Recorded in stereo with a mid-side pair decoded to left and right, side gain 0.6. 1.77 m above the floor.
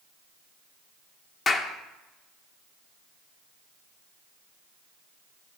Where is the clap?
35° left, 1.8 m.